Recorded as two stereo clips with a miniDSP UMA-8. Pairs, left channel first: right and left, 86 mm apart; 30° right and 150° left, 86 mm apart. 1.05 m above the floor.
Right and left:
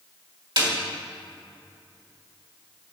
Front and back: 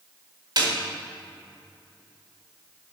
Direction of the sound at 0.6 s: 115° left.